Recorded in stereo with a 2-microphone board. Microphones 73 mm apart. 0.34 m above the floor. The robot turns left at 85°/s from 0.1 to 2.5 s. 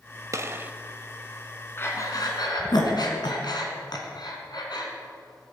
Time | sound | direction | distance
0.3 | a gunshot | 120° right | 0.6 m
1.8 | breathing | 30° left (ahead or behind) | 2 m